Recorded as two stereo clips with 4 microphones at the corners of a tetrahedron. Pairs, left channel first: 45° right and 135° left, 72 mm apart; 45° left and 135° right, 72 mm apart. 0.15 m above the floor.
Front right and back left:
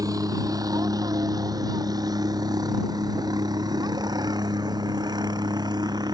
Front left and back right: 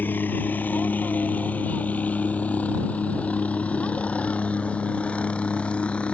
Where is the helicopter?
105° left; by 6.1 s 120° left.